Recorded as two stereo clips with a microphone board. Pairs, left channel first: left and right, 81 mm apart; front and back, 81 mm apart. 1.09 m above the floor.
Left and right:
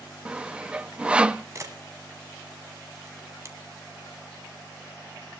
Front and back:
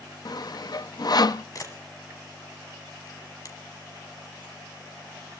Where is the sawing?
15° right, 0.6 m.